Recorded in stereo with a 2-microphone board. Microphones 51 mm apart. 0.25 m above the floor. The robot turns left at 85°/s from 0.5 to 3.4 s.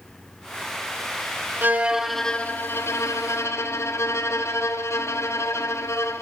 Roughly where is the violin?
Behind right.